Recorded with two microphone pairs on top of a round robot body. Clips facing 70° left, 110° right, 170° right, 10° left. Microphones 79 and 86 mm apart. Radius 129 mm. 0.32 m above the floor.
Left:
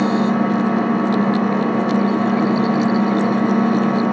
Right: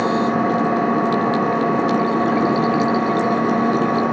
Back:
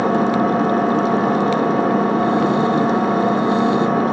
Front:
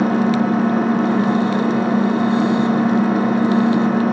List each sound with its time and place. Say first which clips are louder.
0.0 s an engine running: left 1 dB, even; 150° right, 1.4 m